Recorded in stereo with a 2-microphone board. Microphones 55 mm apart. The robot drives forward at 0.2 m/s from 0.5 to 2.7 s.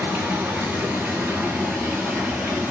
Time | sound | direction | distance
0.0 | running water | 25° right (ahead or behind) | 0.9 m